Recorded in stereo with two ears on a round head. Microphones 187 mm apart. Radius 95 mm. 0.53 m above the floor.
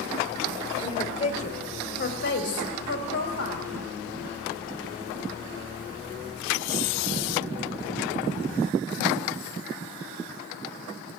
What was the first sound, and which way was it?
A woman speaking, 25° left (ahead or behind).